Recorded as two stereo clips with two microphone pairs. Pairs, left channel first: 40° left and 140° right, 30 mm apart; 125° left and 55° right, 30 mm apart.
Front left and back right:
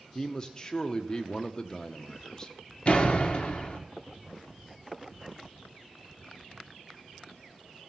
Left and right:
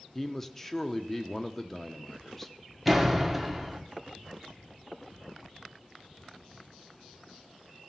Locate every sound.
0.1 s a man speaking: 55° left, 0.7 m
2.9 s a door slam: 30° left, 1.0 m